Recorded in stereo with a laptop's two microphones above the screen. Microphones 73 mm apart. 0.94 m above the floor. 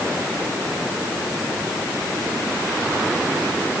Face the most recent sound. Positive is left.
No sound to turn to.